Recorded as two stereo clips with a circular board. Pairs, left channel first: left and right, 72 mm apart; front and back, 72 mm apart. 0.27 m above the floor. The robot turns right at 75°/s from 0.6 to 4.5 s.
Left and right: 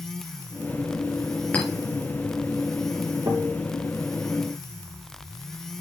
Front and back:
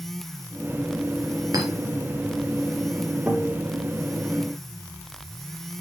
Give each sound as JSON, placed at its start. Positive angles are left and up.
{"t": 1.5, "sound": "a clink", "azimuth_deg": 155, "distance_m": 3.5}
{"t": 3.3, "sound": "a guitar", "azimuth_deg": -105, "distance_m": 5.5}